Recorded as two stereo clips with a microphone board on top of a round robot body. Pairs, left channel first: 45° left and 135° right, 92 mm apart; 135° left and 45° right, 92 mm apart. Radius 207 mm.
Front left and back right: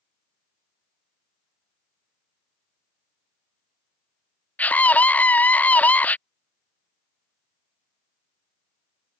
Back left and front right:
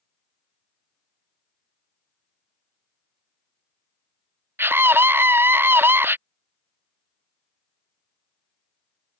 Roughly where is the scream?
Ahead.